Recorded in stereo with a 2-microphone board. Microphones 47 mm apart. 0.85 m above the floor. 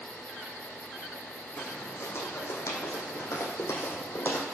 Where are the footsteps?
55° left (ahead or behind), 2.5 m; by 4.4 s 50° left (ahead or behind), 2 m.